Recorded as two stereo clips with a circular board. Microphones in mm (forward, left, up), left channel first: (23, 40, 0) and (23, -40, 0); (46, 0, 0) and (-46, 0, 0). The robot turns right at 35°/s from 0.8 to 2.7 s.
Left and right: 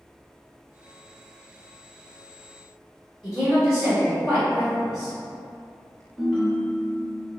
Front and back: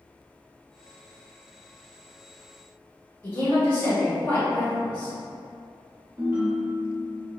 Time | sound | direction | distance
3.2 | a woman speaking | 25° right | 1.5 m
6.2 | a ringtone | 175° left | 1.1 m